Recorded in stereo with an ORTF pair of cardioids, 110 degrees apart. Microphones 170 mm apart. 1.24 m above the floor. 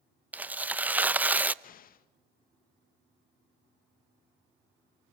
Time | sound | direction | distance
0.3 | tearing paper | 10° right | 0.7 m
1.6 | an explosion | 55° left | 1.9 m